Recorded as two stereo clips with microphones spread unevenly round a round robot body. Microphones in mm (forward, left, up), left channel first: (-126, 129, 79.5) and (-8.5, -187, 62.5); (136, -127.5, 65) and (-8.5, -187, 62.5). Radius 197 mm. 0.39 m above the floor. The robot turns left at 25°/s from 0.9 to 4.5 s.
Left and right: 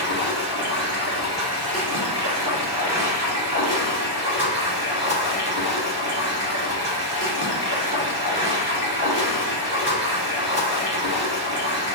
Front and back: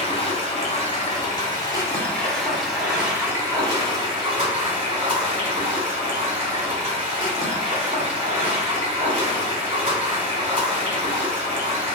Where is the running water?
25° right, 1.5 m; by 11.9 s 115° right, 1.5 m.